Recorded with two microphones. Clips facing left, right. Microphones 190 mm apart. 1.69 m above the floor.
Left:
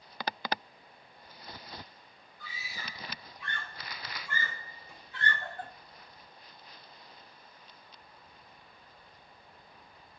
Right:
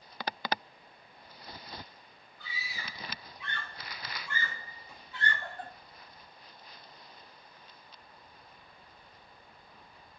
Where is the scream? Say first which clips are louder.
Right 1 dB; 50° left (ahead or behind), 8 m; by 5.7 s 55° left (ahead or behind), 6 m.